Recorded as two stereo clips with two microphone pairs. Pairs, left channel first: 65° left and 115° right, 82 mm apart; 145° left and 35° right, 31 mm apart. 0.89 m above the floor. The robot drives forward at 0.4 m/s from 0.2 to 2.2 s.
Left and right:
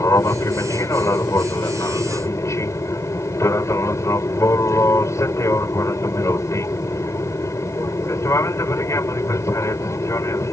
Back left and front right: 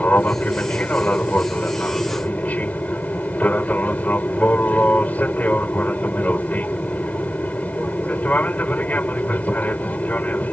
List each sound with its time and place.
0.0 s an aircraft: 115° left; by 10.5 s 120° left